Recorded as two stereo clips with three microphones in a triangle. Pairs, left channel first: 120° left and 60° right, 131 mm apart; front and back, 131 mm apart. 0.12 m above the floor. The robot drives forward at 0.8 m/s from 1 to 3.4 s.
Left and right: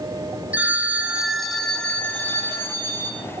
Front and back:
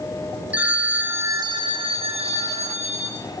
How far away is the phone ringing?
About 0.8 m.